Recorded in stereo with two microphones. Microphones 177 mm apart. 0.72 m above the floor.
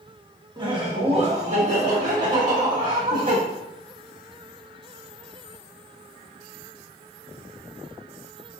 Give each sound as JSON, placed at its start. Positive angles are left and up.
{"t": 0.6, "sound": "laughter", "side_deg": -25, "distance_m": 1.0}